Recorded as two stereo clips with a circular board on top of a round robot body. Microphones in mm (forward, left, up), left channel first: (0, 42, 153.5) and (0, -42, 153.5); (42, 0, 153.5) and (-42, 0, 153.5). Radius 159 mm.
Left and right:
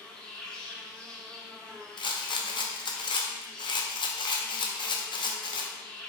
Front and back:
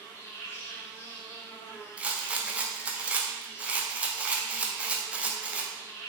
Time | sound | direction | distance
0.0 | an insect | 20° left | 1.3 m
2.0 | a rattle | 105° left | 0.7 m